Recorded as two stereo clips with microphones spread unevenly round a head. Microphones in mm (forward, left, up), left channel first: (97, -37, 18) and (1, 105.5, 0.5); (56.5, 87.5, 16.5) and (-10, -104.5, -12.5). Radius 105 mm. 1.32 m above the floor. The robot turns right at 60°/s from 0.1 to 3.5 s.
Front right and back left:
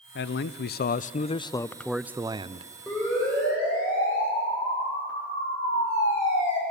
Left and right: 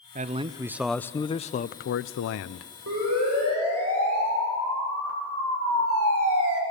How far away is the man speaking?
About 0.5 m.